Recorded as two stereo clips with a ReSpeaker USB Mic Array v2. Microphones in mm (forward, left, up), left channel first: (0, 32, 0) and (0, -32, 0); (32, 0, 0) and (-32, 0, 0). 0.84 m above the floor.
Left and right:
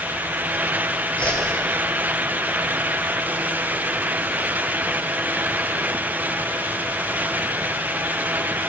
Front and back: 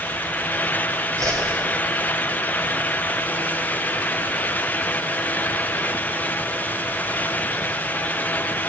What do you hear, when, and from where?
1.2 s a whoosh: 160° left, 1.5 m